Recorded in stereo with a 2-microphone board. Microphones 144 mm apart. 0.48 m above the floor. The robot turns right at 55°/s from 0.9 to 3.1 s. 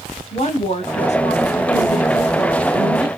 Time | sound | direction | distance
0.3 | a woman speaking | 75° left | 1.0 m